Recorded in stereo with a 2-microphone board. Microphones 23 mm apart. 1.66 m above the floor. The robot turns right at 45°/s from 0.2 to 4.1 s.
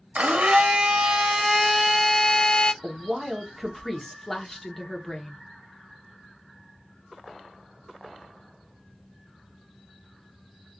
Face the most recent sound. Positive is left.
turn(degrees=15)